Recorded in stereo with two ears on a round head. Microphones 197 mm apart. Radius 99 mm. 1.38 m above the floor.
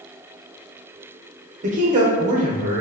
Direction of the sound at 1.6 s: 35° right (ahead or behind).